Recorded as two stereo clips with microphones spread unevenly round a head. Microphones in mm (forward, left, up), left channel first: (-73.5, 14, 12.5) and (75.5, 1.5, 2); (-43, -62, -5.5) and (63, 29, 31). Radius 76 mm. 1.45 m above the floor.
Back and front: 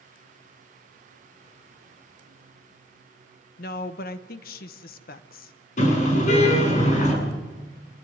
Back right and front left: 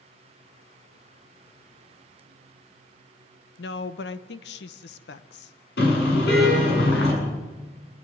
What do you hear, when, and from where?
3.6 s a woman speaking: 150° right, 1.0 m
5.8 s a car horn: 140° right, 8 m